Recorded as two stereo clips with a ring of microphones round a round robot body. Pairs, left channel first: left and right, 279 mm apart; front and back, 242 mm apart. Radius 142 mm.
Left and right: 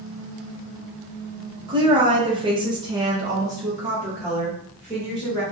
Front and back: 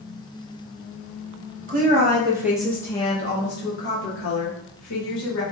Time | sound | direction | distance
1.7 | a woman speaking | 155° right | 0.8 m